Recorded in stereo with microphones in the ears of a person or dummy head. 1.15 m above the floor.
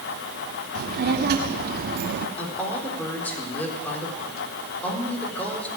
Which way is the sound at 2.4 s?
10° left (ahead or behind).